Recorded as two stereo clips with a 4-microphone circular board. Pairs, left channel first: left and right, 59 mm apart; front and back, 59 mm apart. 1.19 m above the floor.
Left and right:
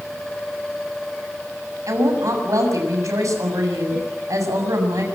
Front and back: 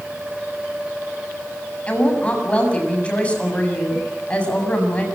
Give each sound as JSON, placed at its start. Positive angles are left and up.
{"t": 1.9, "sound": "a woman speaking", "azimuth_deg": -70, "distance_m": 7.0}